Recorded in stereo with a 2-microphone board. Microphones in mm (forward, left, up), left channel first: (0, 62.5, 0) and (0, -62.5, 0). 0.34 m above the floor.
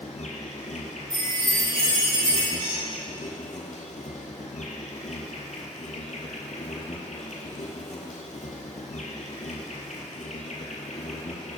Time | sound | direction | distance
0.0 | an insect | 75° left (ahead or behind) | 0.9 m
1.1 | a chime | 45° right (ahead or behind) | 1.7 m
2.6 | a squeak | 40° right (ahead or behind) | 1.5 m